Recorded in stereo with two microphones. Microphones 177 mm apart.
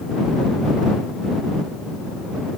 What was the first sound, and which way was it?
Only background noise.